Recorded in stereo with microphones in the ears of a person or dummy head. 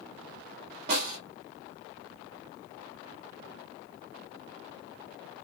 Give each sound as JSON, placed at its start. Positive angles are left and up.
{"t": 0.9, "sound": "a snare drum", "side_deg": -60, "distance_m": 1.9}